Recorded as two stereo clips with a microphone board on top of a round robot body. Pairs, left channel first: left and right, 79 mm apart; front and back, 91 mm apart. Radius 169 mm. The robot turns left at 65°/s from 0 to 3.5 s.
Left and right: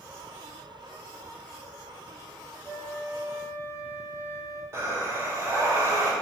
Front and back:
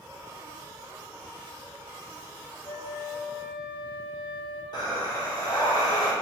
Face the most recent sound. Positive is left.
turn(degrees=-35)